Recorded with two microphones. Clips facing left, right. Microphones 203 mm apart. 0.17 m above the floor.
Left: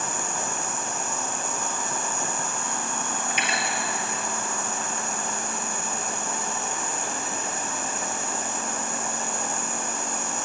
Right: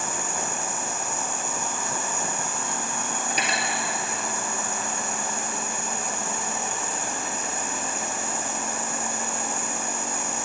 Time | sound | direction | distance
0.0 | an insect | 10° right (ahead or behind) | 1.9 m
3.3 | cutlery clinking | 40° right (ahead or behind) | 2.5 m